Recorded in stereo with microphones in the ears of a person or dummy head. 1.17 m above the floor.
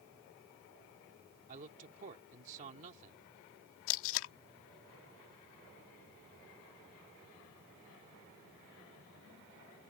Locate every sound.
1.5 s a man speaking: 45° right (ahead or behind)
3.9 s tape being pulled: 75° left (ahead or behind)